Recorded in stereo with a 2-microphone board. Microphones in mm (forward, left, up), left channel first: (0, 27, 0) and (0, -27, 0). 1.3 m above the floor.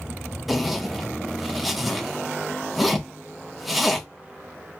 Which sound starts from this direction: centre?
A zipper, at 0.5 s.